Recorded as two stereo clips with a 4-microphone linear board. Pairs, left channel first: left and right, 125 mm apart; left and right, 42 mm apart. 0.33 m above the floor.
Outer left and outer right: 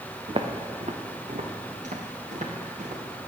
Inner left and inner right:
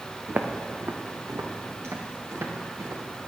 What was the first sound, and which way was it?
Footsteps, 40° right (ahead or behind).